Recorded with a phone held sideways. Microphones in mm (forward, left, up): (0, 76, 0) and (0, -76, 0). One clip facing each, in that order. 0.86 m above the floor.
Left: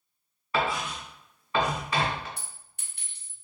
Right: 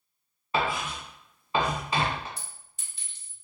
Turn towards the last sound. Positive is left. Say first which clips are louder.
# even
turn(degrees=60)  # may be behind; listen again after turning